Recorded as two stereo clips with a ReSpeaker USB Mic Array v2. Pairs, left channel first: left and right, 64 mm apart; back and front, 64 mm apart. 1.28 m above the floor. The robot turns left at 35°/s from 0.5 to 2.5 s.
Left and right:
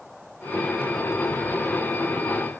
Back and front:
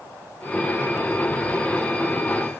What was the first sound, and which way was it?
Only background noise.